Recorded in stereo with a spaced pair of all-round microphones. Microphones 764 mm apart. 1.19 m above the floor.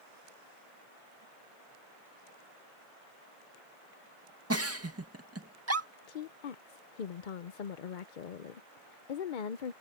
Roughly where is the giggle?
Centre.